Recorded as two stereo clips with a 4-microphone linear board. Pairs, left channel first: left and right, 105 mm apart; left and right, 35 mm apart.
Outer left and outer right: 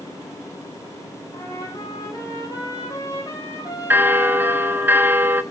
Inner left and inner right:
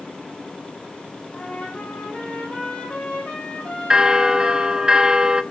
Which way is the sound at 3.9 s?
20° right (ahead or behind).